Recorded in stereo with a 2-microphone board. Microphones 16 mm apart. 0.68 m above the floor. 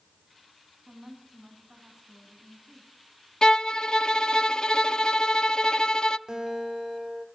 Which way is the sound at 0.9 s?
50° right (ahead or behind).